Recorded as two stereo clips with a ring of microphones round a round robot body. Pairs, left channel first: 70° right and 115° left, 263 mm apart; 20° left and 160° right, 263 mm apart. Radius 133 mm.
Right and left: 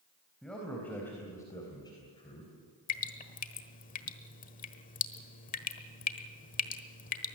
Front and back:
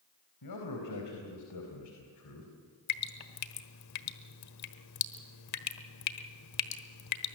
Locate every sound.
0.4 s a man speaking: 20° left, 4 m; by 2.5 s straight ahead, 3 m
2.9 s dripping: 5° right, 1.3 m